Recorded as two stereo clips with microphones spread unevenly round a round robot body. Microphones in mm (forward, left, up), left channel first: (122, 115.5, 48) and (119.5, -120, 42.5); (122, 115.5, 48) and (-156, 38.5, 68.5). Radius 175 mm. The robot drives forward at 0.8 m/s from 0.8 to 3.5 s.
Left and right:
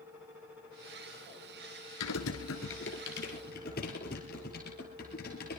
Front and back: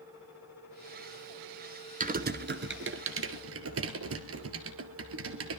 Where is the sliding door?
No sliding door in this recording.